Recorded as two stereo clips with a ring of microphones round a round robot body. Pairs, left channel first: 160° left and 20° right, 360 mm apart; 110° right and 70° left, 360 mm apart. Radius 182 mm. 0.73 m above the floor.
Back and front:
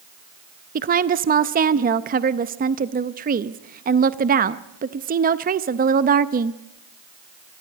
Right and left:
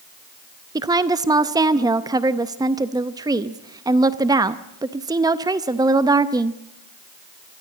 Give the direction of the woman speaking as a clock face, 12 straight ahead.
12 o'clock.